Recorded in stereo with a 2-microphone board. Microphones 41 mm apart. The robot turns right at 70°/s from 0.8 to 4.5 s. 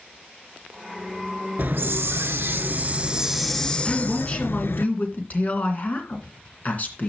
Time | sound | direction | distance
1.6 | a hiss | 130° right | 0.6 m
3.9 | a woman speaking | 15° left | 2.5 m